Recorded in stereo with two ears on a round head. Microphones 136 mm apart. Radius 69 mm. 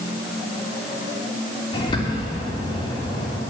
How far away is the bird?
About 2.5 m.